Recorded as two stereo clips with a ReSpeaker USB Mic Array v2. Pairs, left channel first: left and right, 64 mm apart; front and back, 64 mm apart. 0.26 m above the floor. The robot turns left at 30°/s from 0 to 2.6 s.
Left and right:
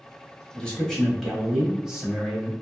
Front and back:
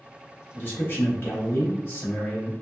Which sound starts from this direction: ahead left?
A man speaking, at 0.5 s.